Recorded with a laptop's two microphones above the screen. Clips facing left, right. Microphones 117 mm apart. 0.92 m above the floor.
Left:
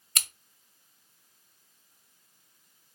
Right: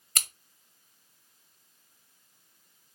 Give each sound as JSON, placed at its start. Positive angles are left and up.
{"t": 0.1, "sound": "scissors", "side_deg": -35, "distance_m": 0.9}